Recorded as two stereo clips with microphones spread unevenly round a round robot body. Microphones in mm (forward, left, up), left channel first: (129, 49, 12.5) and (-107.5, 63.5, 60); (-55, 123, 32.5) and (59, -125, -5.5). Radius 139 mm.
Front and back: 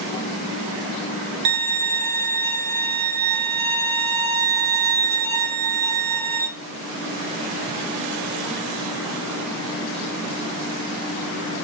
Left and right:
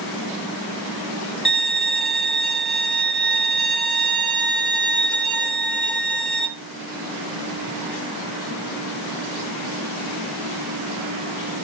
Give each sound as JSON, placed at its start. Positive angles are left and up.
{"t": 1.4, "sound": "a violin", "azimuth_deg": -155, "distance_m": 2.5}